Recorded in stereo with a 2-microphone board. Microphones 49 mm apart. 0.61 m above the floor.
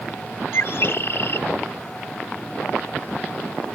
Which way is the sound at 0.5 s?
55° left (ahead or behind).